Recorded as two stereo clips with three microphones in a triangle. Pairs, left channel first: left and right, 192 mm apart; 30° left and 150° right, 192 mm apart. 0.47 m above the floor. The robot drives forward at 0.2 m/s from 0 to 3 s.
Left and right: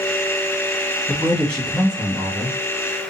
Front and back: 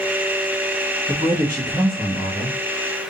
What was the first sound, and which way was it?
A man speaking, 175° left.